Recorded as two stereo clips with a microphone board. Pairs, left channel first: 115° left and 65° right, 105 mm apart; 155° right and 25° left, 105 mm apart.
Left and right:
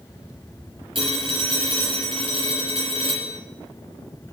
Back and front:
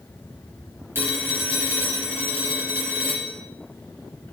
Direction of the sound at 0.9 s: 45° right.